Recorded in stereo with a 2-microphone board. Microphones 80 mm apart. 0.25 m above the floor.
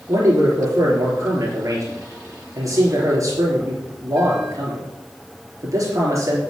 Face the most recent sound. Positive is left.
turn(degrees=-45)  # may be behind; listen again after turning